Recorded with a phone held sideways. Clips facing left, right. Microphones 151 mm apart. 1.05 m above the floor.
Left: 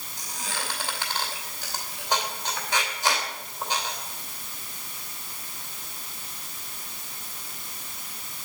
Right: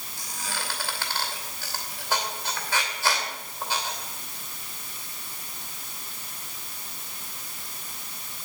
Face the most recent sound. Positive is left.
turn(degrees=20)  # may be behind; listen again after turning